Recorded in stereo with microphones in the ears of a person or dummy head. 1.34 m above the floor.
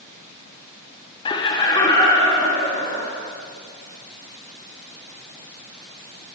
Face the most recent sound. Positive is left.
turn(degrees=20)  # may be behind; listen again after turning